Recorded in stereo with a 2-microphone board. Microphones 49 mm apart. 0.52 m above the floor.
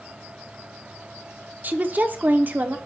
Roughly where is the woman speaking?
Right.